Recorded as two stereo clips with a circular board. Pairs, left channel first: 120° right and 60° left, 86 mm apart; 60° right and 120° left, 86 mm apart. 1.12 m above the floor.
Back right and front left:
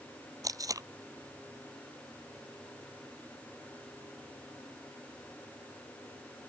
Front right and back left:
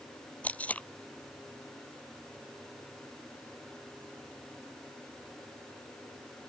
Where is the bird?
No bird in this recording.